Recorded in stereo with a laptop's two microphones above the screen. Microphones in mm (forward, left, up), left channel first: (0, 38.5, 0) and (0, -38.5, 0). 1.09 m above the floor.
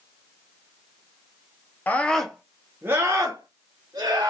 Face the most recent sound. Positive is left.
turn(degrees=-60)  # may be behind; listen again after turning